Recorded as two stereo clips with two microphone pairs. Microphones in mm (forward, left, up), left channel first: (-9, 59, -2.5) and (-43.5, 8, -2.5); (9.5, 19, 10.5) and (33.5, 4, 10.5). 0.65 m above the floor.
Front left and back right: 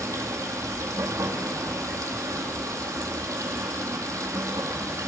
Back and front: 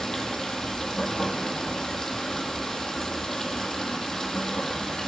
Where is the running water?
135° right, 1.6 m.